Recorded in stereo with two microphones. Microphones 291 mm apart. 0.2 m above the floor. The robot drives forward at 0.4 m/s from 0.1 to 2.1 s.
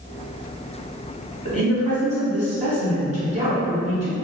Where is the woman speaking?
25° right (ahead or behind), 1.2 m.